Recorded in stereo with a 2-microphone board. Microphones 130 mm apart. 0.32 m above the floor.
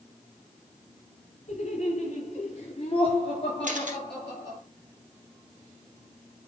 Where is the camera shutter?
80° right, 2.5 m.